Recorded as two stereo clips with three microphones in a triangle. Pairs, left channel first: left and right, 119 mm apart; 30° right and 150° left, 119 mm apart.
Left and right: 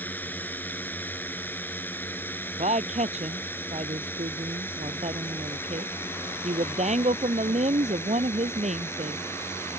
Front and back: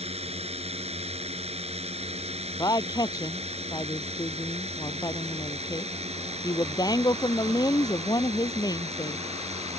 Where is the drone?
165° left; by 9.8 s 155° left.